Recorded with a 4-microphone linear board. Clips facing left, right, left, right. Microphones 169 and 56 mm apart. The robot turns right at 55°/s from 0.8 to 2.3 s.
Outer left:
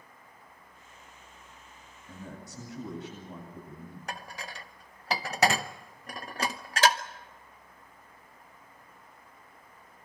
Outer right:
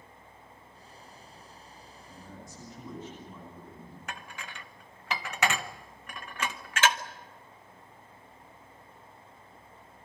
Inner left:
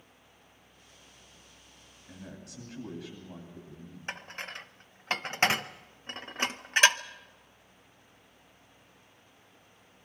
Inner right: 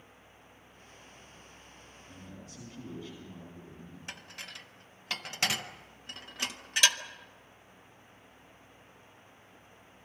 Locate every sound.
2.1 s a man speaking: 60° left (ahead or behind), 9 m; by 4.0 s 75° left (ahead or behind), 9 m
4.1 s dishes clattering: 35° left (ahead or behind), 0.8 m